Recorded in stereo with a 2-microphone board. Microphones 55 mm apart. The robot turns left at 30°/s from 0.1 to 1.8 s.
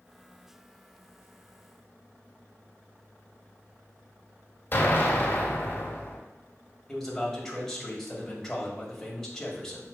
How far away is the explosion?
About 1.8 m.